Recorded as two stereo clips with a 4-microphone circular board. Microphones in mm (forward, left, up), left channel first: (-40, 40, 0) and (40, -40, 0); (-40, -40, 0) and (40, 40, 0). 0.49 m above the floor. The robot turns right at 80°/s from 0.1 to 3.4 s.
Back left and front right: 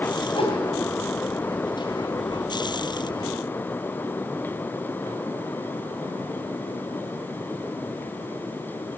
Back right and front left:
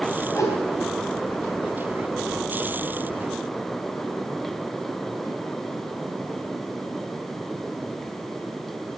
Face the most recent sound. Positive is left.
turn(degrees=45)